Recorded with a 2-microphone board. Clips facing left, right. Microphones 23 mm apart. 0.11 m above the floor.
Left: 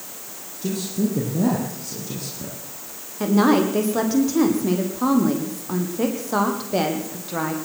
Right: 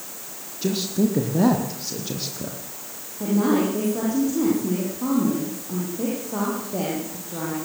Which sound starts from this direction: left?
A woman speaking, at 3.2 s.